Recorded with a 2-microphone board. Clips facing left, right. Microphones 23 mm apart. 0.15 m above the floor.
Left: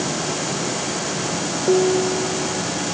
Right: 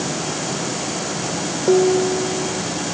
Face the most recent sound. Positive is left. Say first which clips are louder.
# right 2 dB
turn(degrees=-10)  # may be behind; listen again after turning